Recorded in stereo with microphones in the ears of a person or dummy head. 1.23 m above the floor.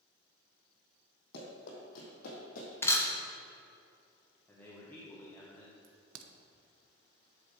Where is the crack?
75° right (ahead or behind), 0.7 m.